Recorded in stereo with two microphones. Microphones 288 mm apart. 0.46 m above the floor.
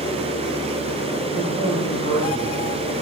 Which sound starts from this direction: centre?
A man speaking, at 1.4 s.